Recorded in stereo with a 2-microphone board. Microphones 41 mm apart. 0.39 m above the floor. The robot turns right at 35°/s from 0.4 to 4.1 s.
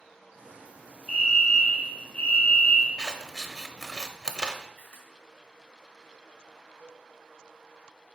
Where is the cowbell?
70° left (ahead or behind), 2.0 m.